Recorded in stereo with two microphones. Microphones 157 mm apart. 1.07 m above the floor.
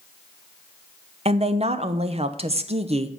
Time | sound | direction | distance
1.2 | a woman speaking | 40° right (ahead or behind) | 0.6 m